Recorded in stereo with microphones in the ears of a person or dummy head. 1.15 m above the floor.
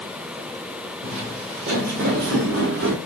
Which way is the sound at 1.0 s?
50° right (ahead or behind).